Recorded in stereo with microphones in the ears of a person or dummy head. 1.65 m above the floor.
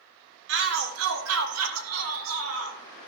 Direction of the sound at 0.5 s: 65° right (ahead or behind).